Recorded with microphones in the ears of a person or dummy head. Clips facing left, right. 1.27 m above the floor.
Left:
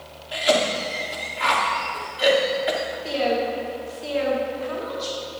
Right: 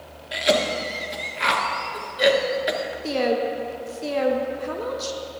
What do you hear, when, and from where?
0.3 s a cough: 30° right (ahead or behind), 0.8 m
3.0 s a woman speaking: 60° right (ahead or behind), 0.7 m